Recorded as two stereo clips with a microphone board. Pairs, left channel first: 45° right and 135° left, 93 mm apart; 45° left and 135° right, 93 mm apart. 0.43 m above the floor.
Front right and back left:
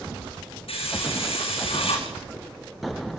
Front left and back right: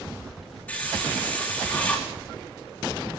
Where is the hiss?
30° right, 5.5 m.